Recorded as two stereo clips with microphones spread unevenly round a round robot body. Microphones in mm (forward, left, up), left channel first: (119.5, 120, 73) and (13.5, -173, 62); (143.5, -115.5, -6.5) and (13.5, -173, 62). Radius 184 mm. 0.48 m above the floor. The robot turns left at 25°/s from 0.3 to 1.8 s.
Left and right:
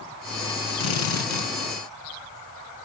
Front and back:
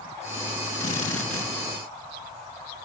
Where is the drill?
70° left, 6.5 m; by 1.5 s 55° left, 6.5 m.